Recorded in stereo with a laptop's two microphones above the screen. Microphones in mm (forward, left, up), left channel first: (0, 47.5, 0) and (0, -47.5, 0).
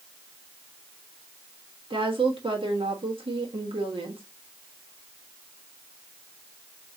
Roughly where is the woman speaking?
Right.